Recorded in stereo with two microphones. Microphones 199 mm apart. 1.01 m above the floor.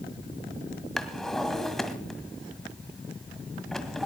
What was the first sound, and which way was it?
A drawer, centre (ahead or behind).